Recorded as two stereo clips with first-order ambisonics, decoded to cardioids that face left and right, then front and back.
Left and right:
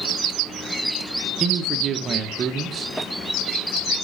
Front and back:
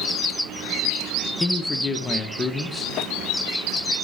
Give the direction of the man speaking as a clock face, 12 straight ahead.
2 o'clock.